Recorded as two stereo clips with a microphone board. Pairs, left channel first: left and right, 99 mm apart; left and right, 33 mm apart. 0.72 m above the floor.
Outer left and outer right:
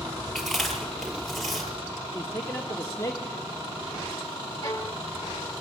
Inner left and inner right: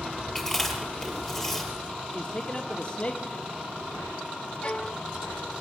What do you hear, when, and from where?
0.3 s chewing: centre (ahead or behind), 7 m
2.1 s a man speaking: 30° left (ahead or behind), 1.4 m
4.6 s a violin: 35° left (ahead or behind), 2.0 m